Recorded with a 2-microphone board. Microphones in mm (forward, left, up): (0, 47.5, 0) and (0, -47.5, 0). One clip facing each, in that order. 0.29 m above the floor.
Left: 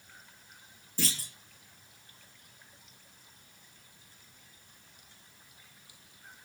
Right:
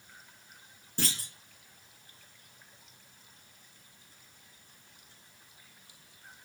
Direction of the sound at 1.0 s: 60° right (ahead or behind).